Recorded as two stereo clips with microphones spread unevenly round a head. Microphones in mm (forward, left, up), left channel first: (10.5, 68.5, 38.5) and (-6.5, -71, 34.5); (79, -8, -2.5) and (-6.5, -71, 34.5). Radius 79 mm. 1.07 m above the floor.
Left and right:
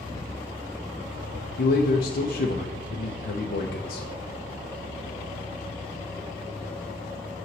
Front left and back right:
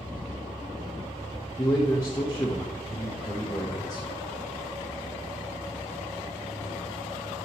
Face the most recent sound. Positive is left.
turn(degrees=95)